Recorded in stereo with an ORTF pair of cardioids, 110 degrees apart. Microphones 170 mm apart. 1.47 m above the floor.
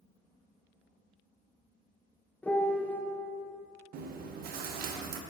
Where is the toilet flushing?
I don't hear a toilet flushing.